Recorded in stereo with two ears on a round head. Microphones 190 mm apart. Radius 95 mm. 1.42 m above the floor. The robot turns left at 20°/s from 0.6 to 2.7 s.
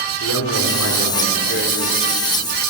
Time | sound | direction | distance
0.2 | a man speaking | 70° left (ahead or behind) | 3.5 m